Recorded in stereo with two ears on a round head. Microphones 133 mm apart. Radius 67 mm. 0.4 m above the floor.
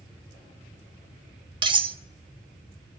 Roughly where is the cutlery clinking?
Right.